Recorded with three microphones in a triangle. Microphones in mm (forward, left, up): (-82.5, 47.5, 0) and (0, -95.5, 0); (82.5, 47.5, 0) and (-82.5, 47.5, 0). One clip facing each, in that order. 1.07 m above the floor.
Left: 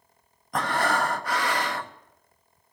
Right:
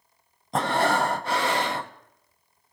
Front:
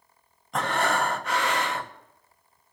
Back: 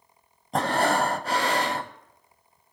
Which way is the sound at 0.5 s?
125° right.